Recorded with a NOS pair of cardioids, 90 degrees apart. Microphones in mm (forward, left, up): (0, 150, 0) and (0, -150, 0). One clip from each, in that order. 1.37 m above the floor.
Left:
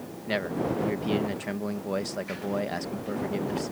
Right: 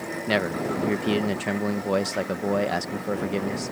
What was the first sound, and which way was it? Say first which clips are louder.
A man speaking: right 3 dB; 35° right.